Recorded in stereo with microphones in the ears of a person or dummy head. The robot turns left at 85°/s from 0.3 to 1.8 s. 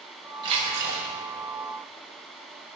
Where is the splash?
20° right, 4 m; by 1.1 s 75° right, 4 m.